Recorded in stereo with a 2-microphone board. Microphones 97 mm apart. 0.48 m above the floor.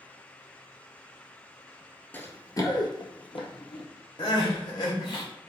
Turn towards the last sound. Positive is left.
turn(degrees=55)  # may be behind; listen again after turning